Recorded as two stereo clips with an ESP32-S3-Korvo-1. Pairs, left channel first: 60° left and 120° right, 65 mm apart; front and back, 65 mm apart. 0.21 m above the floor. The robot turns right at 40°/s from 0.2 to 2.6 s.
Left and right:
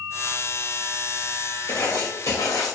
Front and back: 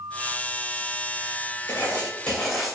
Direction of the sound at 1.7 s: 55° left.